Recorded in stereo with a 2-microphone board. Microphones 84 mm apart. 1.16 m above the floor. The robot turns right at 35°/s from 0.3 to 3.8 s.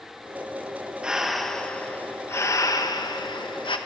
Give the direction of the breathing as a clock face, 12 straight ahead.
12 o'clock.